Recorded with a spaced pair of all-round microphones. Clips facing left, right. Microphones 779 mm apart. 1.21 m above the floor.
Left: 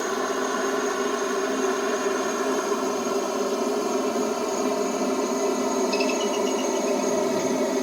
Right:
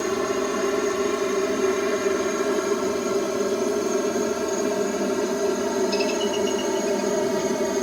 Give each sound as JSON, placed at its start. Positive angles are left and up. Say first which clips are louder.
{"t": 0.0, "sound": "a helicopter", "louder": "right 3 dB", "side_deg": -55}